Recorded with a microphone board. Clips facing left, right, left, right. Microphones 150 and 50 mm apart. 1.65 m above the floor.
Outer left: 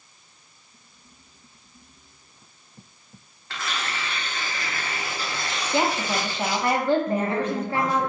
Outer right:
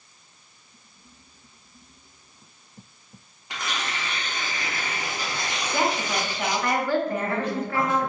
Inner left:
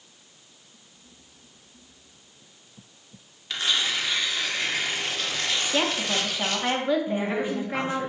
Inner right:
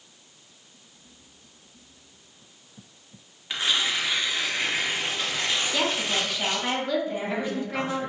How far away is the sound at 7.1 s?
About 1.0 m.